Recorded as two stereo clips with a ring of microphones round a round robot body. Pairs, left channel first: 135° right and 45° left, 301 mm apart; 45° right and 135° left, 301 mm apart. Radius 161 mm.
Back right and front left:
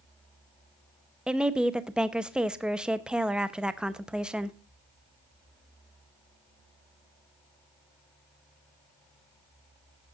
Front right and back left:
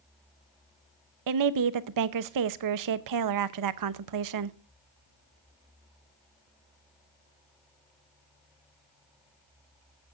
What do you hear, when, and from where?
1.3 s a woman speaking: 130° left, 0.8 m